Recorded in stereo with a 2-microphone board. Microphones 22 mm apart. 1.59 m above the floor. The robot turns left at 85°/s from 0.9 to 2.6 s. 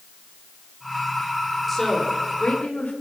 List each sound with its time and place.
1.7 s a woman speaking: 175° left, 5 m; by 2.9 s 100° left, 5 m